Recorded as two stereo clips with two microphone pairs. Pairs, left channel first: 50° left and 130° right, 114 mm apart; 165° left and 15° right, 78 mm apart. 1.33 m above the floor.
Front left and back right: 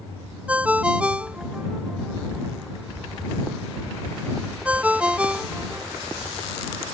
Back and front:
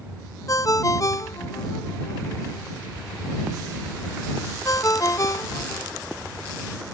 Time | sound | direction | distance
0.5 | a ringtone | 150° left | ?